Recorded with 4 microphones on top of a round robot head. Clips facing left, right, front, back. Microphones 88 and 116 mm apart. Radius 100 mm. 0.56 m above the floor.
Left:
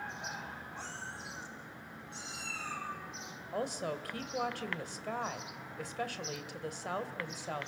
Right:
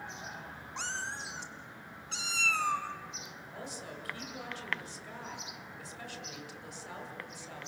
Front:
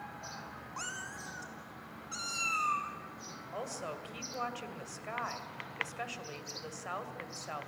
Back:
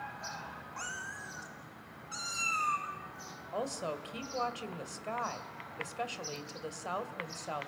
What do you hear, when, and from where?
0.8 s a cat meowing: 70° right, 0.9 m; by 2.9 s 90° right, 2 m
3.5 s a woman speaking: 115° left, 2.5 m